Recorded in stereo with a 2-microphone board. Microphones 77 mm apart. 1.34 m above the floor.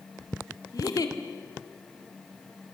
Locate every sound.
0.7 s a giggle: 55° left (ahead or behind), 2.0 m